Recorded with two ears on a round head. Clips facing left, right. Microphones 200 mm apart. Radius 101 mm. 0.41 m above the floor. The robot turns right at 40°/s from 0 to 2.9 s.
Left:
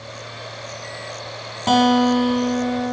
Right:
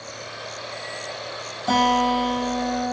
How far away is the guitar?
About 6.5 m.